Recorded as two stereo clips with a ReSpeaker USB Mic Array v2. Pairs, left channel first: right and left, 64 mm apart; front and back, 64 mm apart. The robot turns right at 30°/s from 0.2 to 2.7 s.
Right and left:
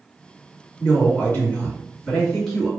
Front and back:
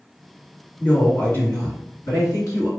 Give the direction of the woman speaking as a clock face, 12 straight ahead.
2 o'clock.